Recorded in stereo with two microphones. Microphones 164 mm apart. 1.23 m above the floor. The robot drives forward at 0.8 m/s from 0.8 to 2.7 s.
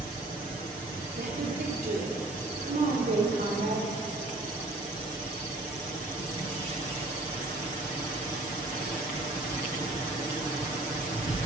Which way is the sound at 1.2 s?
90° right.